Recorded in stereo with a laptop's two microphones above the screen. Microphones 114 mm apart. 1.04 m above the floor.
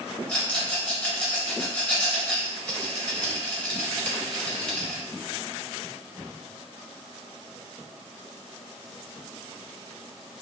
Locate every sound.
0.3 s a rattle: 15° left (ahead or behind), 1.6 m